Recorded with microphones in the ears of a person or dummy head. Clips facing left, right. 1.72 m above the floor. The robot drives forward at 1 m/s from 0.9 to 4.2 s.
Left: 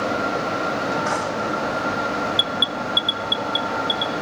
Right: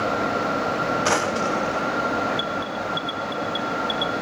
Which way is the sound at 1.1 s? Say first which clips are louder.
Right 1 dB; 50° right (ahead or behind).